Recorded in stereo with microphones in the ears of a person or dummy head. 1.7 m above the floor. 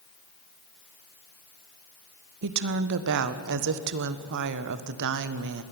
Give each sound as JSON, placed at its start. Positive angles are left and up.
{"t": 2.4, "sound": "a woman speaking", "side_deg": -65, "distance_m": 1.3}